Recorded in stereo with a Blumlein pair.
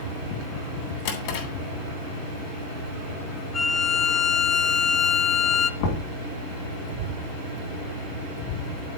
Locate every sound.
1.1 s a drawer: 50° left, 2.5 m
3.5 s a violin: 25° left, 0.8 m
5.8 s knocking: 50° left, 2.5 m